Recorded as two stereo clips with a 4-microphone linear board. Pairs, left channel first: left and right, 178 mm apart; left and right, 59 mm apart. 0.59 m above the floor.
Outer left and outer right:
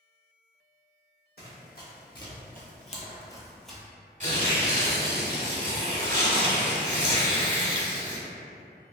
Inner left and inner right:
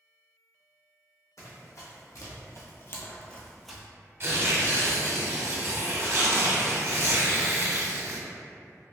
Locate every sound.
1.4 s running footsteps: 60° left (ahead or behind), 1.6 m; by 3.8 s 5° right (ahead or behind), 0.8 m
4.2 s tearing paper: 45° right (ahead or behind), 0.9 m